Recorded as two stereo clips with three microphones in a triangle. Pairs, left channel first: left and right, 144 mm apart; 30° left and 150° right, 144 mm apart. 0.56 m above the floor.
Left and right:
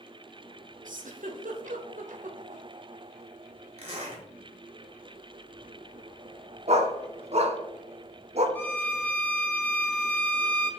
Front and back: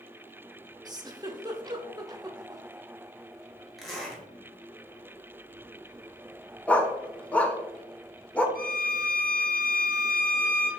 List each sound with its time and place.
0.8 s a giggle: 90° right, 0.6 m
3.8 s a zipper: 60° right, 1.3 m
6.7 s a dog barking: 50° right, 0.6 m
8.6 s a violin: 15° left, 0.6 m